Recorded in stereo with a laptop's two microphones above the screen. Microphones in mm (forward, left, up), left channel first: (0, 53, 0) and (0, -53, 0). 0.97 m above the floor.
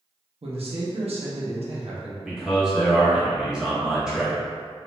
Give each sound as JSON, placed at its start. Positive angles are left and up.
{"t": 0.4, "sound": "a man speaking", "side_deg": -70, "distance_m": 0.6}
{"t": 2.2, "sound": "a man speaking", "side_deg": -5, "distance_m": 0.9}